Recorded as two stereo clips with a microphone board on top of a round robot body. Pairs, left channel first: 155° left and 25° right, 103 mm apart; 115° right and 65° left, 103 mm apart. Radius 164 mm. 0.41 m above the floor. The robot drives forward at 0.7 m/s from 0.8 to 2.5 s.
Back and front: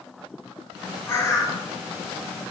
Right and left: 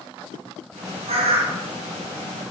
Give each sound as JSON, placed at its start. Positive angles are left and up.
{"t": 1.1, "sound": "a bird", "azimuth_deg": 90, "distance_m": 1.5}